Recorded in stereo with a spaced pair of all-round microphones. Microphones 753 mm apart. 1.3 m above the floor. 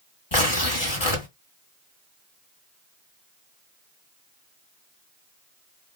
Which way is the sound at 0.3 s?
35° left (ahead or behind).